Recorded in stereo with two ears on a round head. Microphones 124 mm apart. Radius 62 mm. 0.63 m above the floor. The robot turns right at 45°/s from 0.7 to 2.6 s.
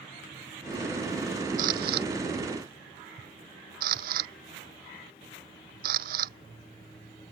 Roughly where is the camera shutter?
Right.